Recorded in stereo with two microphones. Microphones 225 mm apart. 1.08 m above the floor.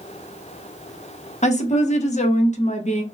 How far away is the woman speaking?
About 0.6 m.